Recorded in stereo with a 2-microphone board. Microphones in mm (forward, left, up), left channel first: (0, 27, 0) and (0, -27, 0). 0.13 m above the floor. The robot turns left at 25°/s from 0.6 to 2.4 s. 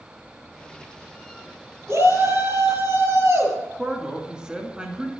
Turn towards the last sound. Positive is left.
turn(degrees=-15)  # may be behind; listen again after turning